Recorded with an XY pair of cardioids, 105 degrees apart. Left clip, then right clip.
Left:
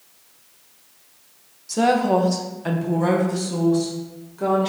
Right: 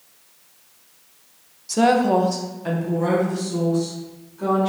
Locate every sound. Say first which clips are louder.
1.7 s a woman speaking: right 1 dB; 20° right, 0.5 m; by 4.7 s 50° left, 1.6 m